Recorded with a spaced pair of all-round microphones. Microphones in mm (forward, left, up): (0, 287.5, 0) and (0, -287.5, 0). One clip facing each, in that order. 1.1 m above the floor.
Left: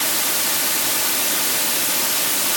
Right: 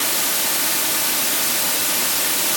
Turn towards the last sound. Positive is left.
No sound to turn to.